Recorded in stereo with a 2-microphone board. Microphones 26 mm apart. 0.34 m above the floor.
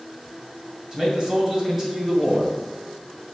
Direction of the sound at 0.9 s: 25° right (ahead or behind).